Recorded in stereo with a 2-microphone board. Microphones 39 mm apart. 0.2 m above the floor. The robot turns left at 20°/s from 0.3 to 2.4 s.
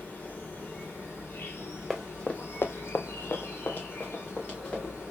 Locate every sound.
0.0 s an insect: 125° left, 2 m; by 5.1 s 80° left, 2 m
1.9 s running footsteps: centre (ahead or behind), 1.0 m; by 4.9 s 35° left (ahead or behind), 3 m